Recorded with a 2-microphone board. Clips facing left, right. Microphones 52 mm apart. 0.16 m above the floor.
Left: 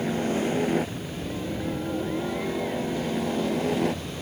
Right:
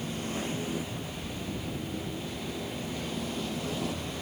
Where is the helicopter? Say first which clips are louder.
Left 9 dB; 60° left (ahead or behind).